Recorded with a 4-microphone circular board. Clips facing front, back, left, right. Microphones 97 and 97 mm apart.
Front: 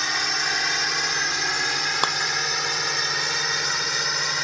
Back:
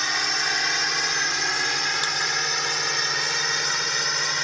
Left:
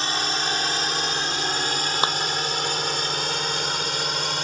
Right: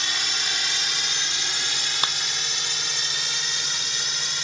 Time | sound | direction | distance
0.0 | a drone | 90° left | ?
2.0 | breaking glass | 30° left | ?